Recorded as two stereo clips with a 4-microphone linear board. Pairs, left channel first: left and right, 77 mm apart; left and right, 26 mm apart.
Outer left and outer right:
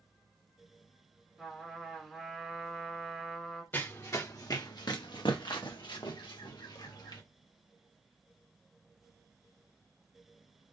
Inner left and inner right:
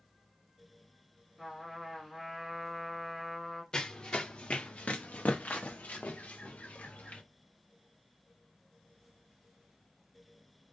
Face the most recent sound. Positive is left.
turn(degrees=70)  # may be behind; listen again after turning